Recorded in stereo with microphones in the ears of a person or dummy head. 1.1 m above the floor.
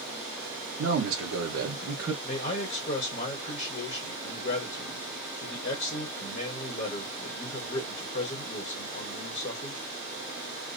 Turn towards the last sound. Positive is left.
turn(degrees=30)  # may be behind; listen again after turning